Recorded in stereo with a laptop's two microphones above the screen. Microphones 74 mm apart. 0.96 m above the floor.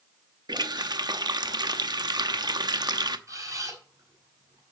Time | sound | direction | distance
0.5 | a running tap | 70° right (ahead or behind) | 0.8 m
3.3 | a camera shutter | 50° right (ahead or behind) | 4.5 m